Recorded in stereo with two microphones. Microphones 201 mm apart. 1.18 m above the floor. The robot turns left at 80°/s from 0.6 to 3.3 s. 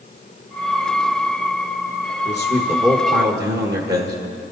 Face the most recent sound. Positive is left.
turn(degrees=-60)